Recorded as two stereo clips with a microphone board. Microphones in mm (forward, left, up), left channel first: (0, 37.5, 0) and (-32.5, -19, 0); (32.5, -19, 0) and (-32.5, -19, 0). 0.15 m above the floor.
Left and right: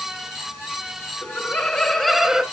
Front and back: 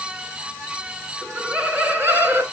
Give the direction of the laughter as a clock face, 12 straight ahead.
9 o'clock.